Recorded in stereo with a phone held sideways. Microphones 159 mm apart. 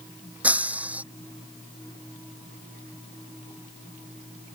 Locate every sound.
0.4 s breaking glass: 10° right (ahead or behind)